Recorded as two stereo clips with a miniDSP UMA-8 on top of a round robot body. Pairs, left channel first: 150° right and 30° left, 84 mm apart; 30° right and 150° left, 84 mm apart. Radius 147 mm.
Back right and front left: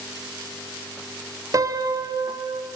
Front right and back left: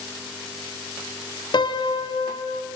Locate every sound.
1.5 s a piano: 15° right, 1.3 m